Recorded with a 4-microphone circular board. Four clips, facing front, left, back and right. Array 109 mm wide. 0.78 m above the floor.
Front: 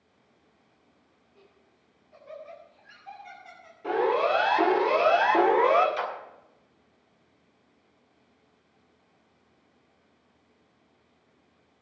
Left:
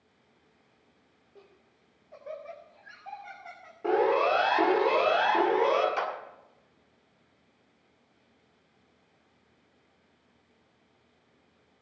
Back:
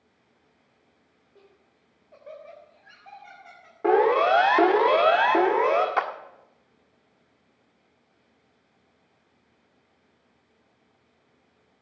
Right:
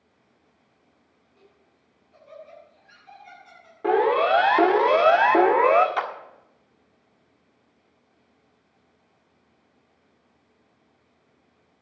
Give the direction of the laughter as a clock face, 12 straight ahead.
8 o'clock.